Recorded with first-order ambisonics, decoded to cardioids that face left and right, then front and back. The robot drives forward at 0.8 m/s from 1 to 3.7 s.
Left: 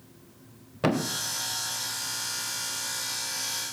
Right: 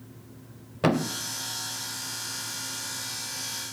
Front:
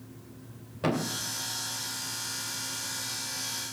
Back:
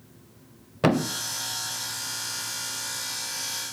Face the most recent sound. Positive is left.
turn(degrees=180)